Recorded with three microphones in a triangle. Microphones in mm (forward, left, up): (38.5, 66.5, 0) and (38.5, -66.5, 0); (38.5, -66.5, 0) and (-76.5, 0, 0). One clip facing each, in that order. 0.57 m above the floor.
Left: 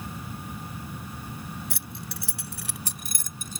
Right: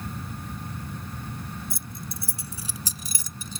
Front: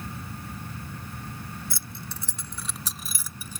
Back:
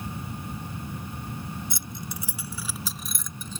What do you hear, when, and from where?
1.7 s keys jangling: 80° left; by 3.6 s 50° left